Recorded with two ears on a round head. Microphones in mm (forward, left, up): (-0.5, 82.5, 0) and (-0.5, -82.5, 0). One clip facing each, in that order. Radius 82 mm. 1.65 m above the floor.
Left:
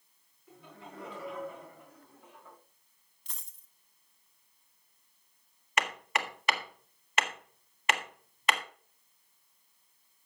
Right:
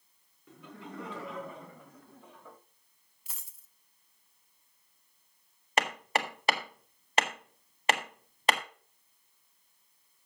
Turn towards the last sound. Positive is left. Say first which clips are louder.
# right 3 dB
turn(degrees=-30)  # may be behind; listen again after turning